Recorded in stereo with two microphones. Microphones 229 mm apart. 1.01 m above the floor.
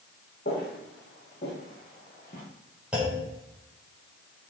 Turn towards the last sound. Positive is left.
turn(degrees=-5)  # may be behind; listen again after turning